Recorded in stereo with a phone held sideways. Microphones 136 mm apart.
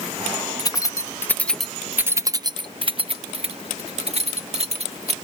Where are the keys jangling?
30° left (ahead or behind); by 5.1 s 50° right (ahead or behind).